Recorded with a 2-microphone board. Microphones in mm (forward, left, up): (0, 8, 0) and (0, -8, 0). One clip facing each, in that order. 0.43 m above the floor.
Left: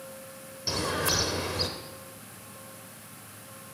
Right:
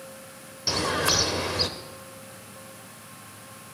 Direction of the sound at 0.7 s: 25° right (ahead or behind).